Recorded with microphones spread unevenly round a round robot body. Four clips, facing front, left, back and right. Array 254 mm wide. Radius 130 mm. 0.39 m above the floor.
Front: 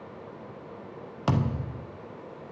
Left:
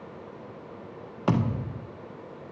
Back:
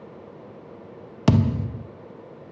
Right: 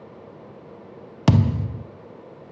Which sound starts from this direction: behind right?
A thud, at 1.3 s.